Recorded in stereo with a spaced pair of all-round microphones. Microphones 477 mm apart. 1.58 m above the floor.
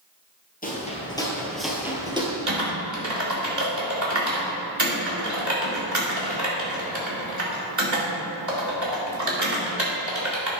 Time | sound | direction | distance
0.6 | footsteps | 15° left (ahead or behind) | 1.9 m
2.5 | typing on a keyboard | 35° right (ahead or behind) | 2.5 m